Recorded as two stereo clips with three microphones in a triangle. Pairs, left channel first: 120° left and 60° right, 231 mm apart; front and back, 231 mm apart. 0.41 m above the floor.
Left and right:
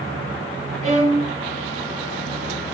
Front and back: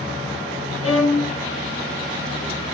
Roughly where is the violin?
Ahead.